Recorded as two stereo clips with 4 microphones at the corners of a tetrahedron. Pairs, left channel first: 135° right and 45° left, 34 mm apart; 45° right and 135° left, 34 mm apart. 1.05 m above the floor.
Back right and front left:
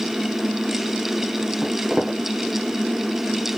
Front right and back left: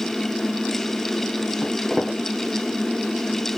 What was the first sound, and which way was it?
Footsteps, 5° right.